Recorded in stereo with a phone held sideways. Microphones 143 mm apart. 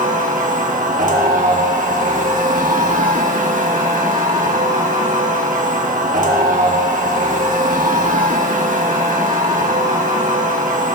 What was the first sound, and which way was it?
A machine running, 60° right (ahead or behind).